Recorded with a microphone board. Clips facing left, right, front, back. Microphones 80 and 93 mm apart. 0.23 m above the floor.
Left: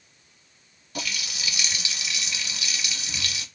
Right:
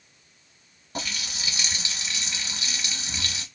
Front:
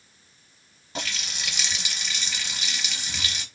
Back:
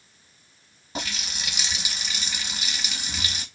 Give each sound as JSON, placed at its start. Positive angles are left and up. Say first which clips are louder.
{"t": 0.9, "sound": "a running tap", "louder": "even, back 1 dB", "azimuth_deg": -110, "distance_m": 0.8}